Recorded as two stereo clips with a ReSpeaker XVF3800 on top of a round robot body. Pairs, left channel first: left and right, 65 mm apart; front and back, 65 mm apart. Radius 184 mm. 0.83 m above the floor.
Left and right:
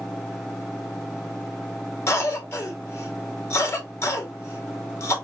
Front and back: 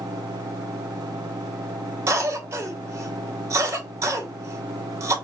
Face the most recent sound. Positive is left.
turn(degrees=135)